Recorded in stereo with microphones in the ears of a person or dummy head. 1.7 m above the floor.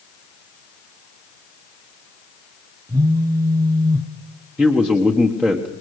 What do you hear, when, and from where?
2.9 s a phone buzzing: 20° right (ahead or behind), 1.2 m
4.6 s a man speaking: 5° right (ahead or behind), 1.4 m